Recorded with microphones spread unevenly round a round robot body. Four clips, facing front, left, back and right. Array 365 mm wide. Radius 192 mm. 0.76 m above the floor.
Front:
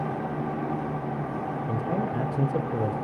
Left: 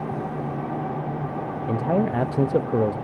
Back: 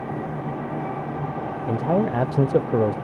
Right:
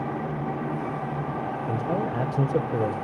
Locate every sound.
1.7 s a man speaking: 155° left, 0.6 m